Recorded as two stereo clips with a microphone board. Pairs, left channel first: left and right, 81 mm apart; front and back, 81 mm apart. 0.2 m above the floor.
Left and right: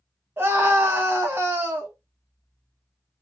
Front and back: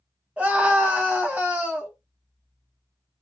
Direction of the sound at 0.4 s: 125° right.